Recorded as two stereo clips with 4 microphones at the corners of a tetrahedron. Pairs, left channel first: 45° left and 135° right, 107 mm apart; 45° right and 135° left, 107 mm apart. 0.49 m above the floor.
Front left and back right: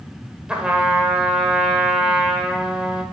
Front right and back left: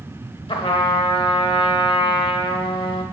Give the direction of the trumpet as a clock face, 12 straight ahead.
2 o'clock.